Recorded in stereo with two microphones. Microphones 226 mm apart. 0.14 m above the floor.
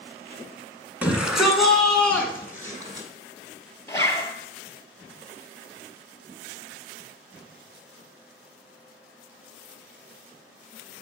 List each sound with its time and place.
1.0 s a shout: 5° right (ahead or behind), 1.2 m; by 3.1 s 15° left (ahead or behind), 1.2 m
3.9 s a zipper: 15° left (ahead or behind), 0.7 m